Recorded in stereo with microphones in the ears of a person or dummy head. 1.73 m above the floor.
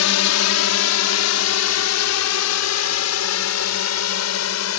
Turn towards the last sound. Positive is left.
turn(degrees=75)  # may be behind; listen again after turning